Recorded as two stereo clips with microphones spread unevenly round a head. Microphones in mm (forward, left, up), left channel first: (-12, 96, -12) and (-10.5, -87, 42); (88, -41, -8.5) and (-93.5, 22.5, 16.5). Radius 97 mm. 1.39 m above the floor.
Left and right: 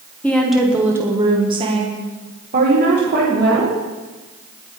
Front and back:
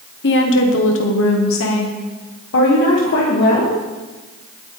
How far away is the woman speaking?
About 1.4 m.